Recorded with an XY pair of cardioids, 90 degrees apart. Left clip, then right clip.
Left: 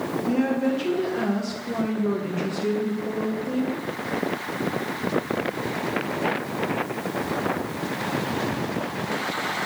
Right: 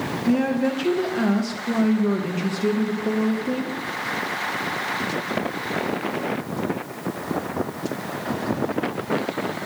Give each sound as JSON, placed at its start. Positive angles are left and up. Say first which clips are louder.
{"t": 0.3, "sound": "a woman speaking", "louder": "right 2 dB", "azimuth_deg": -45, "distance_m": 1.1}